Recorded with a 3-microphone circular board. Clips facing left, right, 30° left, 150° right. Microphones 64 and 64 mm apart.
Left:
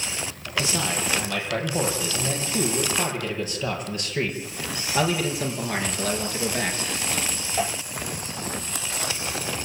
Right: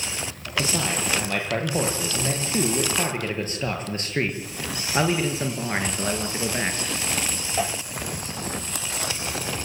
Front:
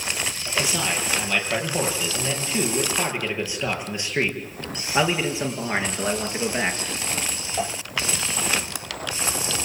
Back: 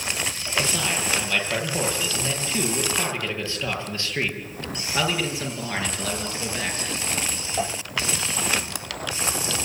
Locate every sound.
0.6 s a man speaking: 55° right, 9 m; by 6.8 s 25° right, 5.5 m